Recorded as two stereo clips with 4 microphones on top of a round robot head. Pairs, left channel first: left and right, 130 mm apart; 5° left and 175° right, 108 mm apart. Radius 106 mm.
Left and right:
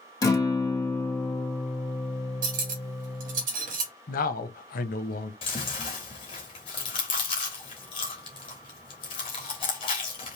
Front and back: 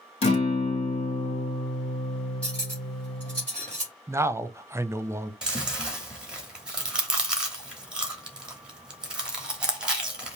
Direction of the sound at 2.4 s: 75° right.